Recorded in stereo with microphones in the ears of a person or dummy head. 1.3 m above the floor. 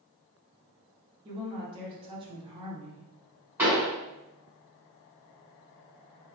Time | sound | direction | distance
1.2 | a woman speaking | 30° right (ahead or behind) | 0.8 m
3.6 | a pop | 15° right (ahead or behind) | 1.5 m